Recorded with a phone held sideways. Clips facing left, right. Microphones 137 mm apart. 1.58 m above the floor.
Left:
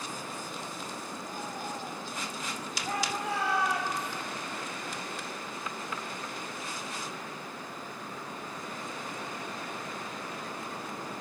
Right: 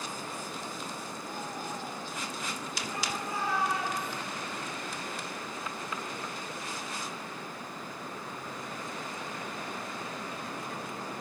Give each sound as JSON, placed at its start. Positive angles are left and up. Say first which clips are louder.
{"t": 2.9, "sound": "a shout", "louder": "left 5 dB", "side_deg": 85, "distance_m": 7.0}